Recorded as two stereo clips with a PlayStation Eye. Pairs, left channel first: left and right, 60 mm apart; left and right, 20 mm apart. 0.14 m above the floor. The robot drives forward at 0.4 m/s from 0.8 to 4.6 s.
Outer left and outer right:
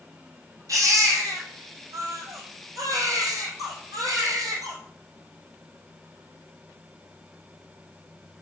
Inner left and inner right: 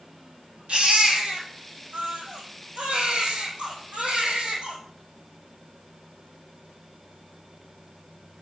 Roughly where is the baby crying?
Right.